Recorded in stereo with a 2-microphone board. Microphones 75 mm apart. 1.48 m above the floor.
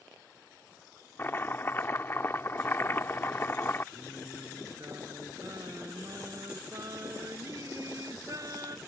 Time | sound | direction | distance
1.2 | chopping | 30° left (ahead or behind) | ?
3.9 | singing | 50° right (ahead or behind) | ?